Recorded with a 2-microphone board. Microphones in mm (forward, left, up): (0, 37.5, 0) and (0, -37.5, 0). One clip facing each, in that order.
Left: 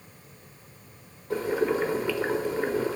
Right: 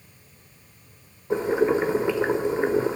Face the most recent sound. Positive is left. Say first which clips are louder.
# right 4 dB
turn(degrees=-20)  # may be behind; listen again after turning